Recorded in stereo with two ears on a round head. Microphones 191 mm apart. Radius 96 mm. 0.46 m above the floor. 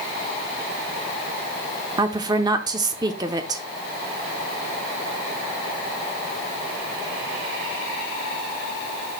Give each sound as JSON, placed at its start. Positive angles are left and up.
{"t": 2.0, "sound": "a woman speaking", "side_deg": -20, "distance_m": 0.7}